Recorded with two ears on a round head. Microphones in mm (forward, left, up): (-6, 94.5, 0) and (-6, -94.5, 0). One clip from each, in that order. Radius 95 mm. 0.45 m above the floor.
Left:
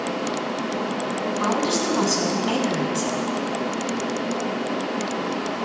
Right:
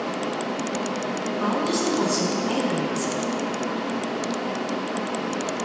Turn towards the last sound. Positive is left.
turn(degrees=75)  # may be behind; listen again after turning